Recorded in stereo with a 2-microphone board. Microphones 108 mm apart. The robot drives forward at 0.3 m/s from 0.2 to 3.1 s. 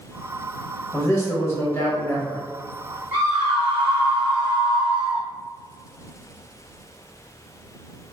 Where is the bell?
No bell in this recording.